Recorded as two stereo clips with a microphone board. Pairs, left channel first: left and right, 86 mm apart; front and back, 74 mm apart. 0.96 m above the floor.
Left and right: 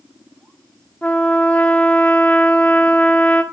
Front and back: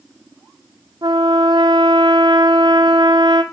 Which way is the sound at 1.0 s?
165° left.